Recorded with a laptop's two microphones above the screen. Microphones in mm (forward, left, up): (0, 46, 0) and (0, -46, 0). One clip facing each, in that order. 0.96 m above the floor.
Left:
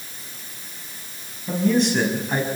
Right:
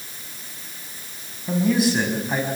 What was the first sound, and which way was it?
A man speaking, 5° right (ahead or behind).